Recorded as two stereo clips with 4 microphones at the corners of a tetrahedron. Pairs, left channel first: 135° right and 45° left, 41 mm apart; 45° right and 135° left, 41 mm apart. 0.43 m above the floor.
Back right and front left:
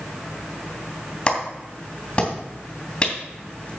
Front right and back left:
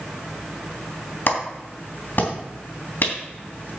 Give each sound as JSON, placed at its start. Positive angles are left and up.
{"t": 1.3, "sound": "a clap", "azimuth_deg": -75, "distance_m": 3.0}